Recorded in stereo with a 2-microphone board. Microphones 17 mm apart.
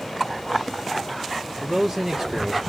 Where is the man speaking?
40° right (ahead or behind), 1.1 m.